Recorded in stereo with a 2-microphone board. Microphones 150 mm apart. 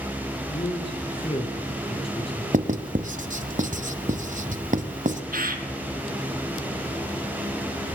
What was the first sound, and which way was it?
A man speaking, 40° left (ahead or behind).